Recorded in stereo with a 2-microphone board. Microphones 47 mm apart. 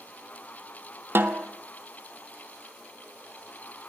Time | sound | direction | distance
1.1 | a snare drum | 50° right (ahead or behind) | 0.6 m